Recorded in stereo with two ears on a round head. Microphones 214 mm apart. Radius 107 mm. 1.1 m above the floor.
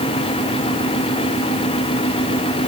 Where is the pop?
No pop in this recording.